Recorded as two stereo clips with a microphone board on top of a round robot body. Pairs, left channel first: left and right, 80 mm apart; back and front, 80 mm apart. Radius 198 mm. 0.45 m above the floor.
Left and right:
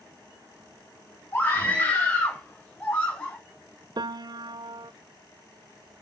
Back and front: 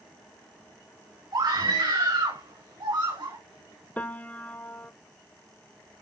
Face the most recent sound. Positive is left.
turn(degrees=-110)